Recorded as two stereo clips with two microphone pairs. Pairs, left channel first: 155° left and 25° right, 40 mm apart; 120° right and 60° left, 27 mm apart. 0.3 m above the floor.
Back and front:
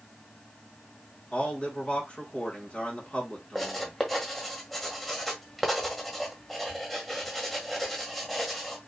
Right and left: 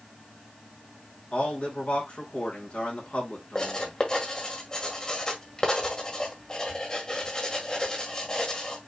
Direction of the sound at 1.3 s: 150° right.